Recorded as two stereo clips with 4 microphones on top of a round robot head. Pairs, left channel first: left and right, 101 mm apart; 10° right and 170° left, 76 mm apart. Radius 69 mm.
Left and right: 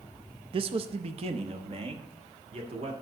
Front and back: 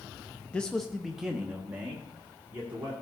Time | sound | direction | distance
0.5 | a man speaking | 80° right | 0.5 m